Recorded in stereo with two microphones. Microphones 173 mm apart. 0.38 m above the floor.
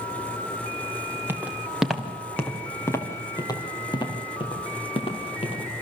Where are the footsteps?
10° right (ahead or behind), 2.5 m; by 5.6 s 35° left (ahead or behind), 5.5 m.